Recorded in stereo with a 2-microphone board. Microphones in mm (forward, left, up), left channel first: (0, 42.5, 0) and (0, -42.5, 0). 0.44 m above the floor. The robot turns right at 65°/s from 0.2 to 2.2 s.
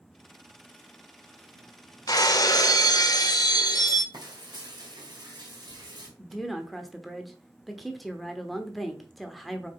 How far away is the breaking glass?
About 0.8 m.